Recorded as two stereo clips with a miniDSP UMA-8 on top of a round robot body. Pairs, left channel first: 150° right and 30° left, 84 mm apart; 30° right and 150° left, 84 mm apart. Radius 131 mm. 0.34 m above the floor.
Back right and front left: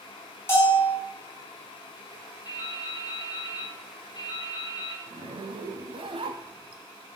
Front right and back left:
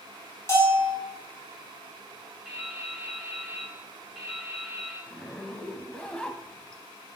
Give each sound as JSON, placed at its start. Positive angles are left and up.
{"t": 0.5, "sound": "a bell", "azimuth_deg": -90, "distance_m": 4.0}
{"t": 2.5, "sound": "dripping", "azimuth_deg": -115, "distance_m": 3.5}
{"t": 5.1, "sound": "a zipper", "azimuth_deg": 50, "distance_m": 0.6}